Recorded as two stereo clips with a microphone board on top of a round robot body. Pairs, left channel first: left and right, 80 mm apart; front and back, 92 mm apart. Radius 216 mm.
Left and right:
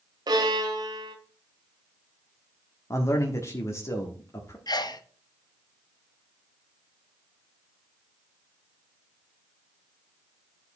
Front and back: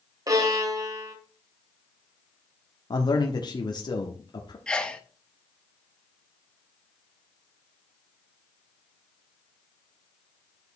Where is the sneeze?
80° left, 1.4 m.